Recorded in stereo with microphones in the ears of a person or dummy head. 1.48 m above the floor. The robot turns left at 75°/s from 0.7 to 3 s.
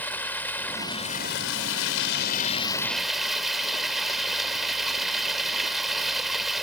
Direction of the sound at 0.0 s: 170° left.